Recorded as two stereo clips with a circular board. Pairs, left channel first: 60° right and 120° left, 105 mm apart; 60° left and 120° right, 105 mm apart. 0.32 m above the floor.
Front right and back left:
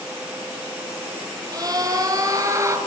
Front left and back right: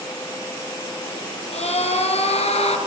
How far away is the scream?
About 6.5 m.